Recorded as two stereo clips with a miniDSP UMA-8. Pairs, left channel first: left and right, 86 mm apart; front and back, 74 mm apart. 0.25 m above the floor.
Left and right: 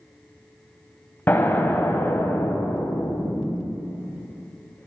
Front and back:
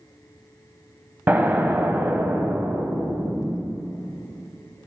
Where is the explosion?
135° left, 0.9 m.